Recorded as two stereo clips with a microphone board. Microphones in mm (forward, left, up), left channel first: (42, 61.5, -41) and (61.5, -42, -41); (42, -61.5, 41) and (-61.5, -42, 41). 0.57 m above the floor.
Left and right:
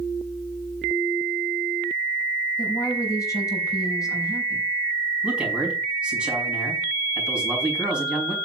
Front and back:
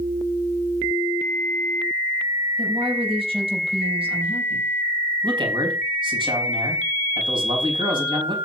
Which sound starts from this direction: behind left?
A woman speaking, at 2.6 s.